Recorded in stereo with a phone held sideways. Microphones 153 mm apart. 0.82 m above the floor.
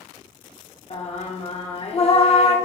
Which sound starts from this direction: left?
Singing, at 0.9 s.